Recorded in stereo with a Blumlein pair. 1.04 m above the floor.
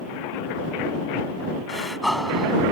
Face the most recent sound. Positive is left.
turn(degrees=0)